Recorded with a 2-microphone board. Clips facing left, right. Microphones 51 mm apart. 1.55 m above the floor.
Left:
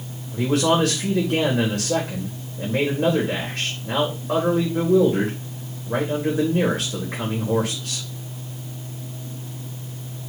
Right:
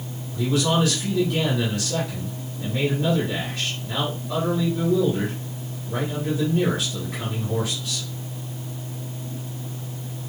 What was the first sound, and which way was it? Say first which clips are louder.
A man speaking: left 3 dB; 70° left (ahead or behind).